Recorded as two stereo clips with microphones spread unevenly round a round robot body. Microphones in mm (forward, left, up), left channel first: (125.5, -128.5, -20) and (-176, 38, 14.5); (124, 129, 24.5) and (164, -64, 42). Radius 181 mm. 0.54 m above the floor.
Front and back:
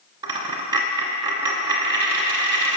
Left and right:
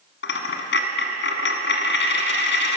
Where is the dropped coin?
75° left, 1.6 m.